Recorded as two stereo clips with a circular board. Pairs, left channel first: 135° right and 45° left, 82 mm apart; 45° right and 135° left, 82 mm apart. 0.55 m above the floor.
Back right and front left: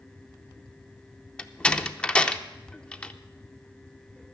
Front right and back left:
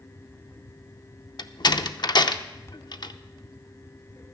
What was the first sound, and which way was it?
A door slam, 60° right.